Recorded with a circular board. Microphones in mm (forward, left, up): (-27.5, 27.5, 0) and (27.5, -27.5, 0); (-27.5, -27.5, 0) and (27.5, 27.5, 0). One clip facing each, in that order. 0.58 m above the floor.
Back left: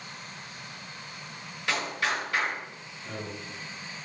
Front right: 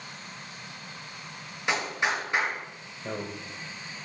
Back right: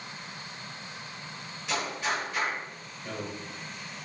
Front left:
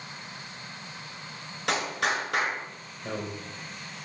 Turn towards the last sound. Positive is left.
turn(degrees=-15)